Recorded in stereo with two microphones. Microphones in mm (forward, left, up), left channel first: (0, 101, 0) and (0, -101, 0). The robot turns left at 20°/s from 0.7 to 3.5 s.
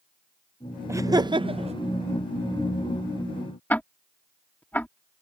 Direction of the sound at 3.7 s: 10° left (ahead or behind).